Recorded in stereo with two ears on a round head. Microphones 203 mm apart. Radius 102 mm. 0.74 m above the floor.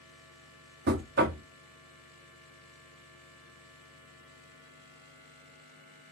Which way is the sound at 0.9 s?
45° right (ahead or behind).